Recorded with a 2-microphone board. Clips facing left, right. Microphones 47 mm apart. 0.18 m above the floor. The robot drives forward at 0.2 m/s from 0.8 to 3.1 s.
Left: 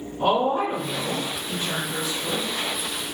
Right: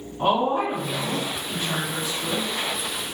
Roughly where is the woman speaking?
Right.